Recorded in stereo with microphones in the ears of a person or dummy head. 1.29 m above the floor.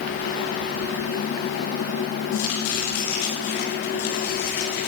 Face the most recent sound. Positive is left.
turn(degrees=85)